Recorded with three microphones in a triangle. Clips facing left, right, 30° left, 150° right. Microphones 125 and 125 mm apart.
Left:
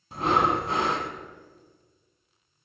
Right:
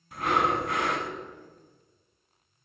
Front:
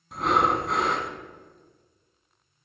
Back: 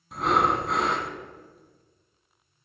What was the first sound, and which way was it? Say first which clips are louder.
Breathing: left 2 dB, even; 120° left.